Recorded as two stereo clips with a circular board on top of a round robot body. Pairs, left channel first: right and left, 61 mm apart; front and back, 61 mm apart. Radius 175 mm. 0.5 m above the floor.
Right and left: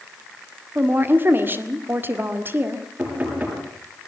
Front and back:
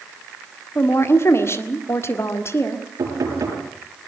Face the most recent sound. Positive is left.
turn(degrees=150)